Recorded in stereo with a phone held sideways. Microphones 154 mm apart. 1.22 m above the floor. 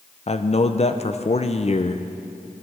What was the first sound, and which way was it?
A man speaking, 40° left (ahead or behind).